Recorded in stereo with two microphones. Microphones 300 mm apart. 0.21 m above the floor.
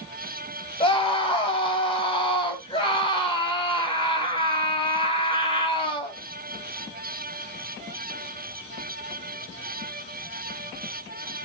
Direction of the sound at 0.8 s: 20° left (ahead or behind).